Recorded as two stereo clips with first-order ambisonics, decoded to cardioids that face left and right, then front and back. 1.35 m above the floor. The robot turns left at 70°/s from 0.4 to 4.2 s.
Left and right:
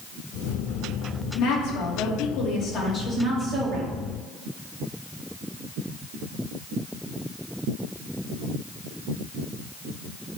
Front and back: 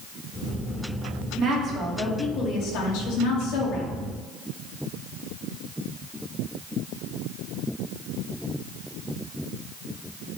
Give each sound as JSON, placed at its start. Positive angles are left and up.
{"t": 1.4, "sound": "a woman speaking", "azimuth_deg": 130, "distance_m": 2.0}